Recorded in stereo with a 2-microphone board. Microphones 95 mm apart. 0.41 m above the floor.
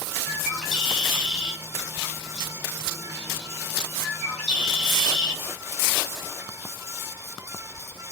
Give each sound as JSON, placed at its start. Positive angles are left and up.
{"t": 0.3, "sound": "a bird", "side_deg": 0, "distance_m": 1.3}